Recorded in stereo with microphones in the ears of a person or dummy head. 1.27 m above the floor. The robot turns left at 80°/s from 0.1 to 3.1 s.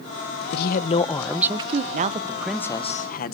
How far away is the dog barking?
I don't hear a dog barking.